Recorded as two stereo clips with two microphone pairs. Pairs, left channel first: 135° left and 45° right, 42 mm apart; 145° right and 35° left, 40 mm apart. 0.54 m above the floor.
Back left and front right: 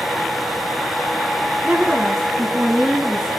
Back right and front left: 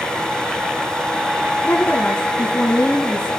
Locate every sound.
1.6 s a woman speaking: 100° right, 4.5 m; by 3.3 s 110° right, 4 m